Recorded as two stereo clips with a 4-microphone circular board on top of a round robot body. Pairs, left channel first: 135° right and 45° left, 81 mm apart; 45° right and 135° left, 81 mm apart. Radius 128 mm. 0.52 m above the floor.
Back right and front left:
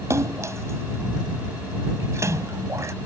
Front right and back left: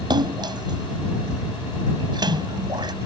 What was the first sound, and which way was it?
A splash, 100° left.